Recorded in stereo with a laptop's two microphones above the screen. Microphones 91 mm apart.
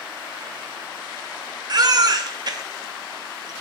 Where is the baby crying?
45° right (ahead or behind), 0.6 m.